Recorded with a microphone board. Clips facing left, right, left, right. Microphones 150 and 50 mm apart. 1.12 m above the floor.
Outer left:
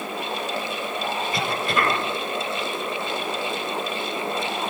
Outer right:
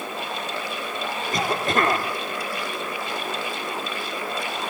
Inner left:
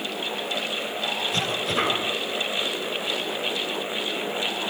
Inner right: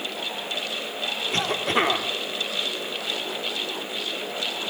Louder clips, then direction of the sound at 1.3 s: Outer right 4 dB, inner right 5 dB; 45° right (ahead or behind).